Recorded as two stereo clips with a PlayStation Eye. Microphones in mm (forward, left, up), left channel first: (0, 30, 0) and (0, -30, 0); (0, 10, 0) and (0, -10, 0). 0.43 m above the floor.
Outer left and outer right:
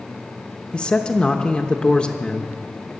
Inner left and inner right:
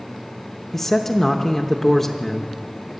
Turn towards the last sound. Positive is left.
turn(degrees=15)  # may be behind; listen again after turning